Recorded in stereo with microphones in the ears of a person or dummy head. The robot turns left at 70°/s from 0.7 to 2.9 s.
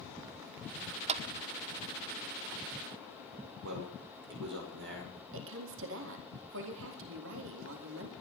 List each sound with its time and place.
1.1 s a clap: 35° right (ahead or behind), 0.9 m; by 1.2 s 40° right (ahead or behind), 0.9 m
3.6 s a man speaking: 65° right (ahead or behind), 5.5 m
5.3 s a woman speaking: 70° right (ahead or behind), 3.5 m